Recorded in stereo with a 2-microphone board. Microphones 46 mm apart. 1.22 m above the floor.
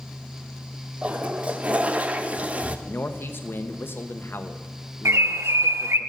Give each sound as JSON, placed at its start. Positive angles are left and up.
{"t": 1.0, "sound": "a toilet flushing", "side_deg": -30, "distance_m": 0.6}
{"t": 2.9, "sound": "a man speaking", "side_deg": 55, "distance_m": 0.9}
{"t": 5.0, "sound": "a bird", "side_deg": -75, "distance_m": 0.6}